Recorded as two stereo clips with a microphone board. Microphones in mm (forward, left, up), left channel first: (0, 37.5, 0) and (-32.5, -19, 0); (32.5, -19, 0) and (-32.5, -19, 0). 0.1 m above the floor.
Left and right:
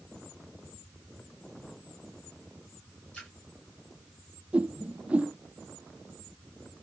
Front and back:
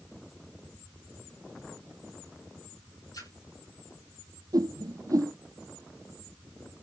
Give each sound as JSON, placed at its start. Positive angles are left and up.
{"t": 3.1, "sound": "a splash", "azimuth_deg": -15, "distance_m": 9.5}
{"t": 4.5, "sound": "a whoosh", "azimuth_deg": 170, "distance_m": 0.6}